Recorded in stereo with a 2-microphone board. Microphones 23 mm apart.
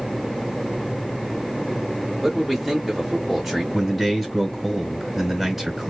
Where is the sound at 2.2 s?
5° right (ahead or behind), 1.0 m.